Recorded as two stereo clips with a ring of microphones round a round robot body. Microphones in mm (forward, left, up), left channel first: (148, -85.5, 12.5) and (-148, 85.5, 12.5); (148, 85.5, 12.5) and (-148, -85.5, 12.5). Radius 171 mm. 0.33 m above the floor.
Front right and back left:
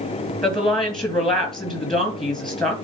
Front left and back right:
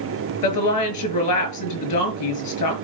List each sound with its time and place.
0.4 s a woman speaking: 60° left, 2.5 m